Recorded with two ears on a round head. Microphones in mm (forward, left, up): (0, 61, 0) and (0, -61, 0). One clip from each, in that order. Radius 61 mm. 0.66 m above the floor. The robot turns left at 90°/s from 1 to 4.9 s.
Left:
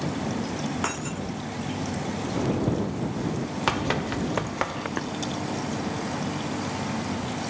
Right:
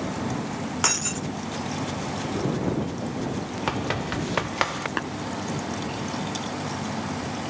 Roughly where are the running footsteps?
Left.